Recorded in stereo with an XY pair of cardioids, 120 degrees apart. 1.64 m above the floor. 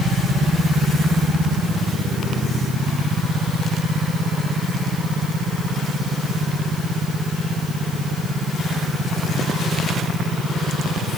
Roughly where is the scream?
I don't hear a scream.